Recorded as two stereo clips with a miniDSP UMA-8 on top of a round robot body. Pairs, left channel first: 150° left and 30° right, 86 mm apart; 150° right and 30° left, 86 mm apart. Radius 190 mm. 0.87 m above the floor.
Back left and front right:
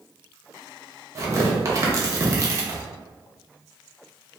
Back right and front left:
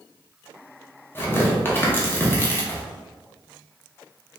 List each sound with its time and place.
1.1 s tearing paper: 85° right, 0.7 m